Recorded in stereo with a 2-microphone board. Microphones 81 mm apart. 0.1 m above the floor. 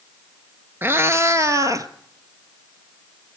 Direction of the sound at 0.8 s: 30° right (ahead or behind).